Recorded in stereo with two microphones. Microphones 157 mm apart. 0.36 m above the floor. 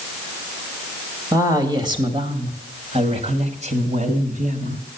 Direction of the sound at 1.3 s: 25° right (ahead or behind).